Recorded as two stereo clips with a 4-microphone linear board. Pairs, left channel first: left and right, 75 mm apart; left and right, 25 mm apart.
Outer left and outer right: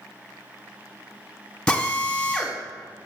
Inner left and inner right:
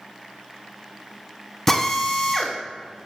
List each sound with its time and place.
1.7 s a drill: 10° left (ahead or behind), 1.1 m